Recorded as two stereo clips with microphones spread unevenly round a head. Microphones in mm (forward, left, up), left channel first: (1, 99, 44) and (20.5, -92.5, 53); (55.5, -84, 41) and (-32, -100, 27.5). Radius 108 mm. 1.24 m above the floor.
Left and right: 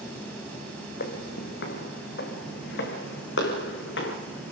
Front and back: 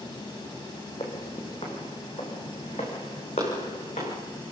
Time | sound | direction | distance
1.0 | footsteps | 60° left | 2.5 m